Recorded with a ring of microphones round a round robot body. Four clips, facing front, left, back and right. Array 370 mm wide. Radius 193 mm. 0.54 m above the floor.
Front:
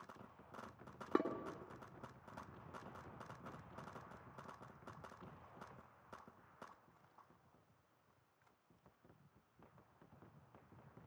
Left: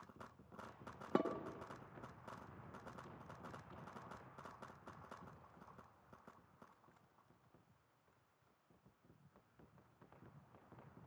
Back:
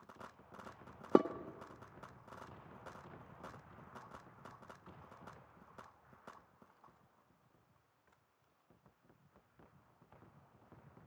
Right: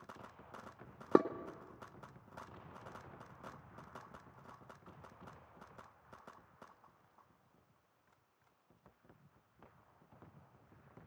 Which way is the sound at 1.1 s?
140° right.